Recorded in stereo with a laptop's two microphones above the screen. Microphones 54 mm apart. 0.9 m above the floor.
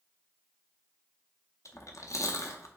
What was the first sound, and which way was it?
Chewing, 75° left (ahead or behind).